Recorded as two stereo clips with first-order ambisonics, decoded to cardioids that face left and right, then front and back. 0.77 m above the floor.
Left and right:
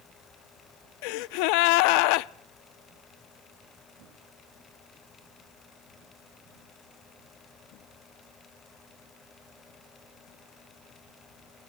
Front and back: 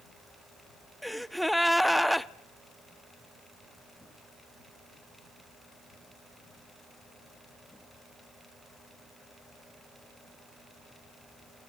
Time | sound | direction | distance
1.0 | a gasp | 90° left | 0.5 m